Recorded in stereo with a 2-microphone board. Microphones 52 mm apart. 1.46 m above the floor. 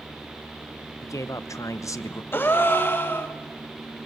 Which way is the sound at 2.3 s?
45° left (ahead or behind).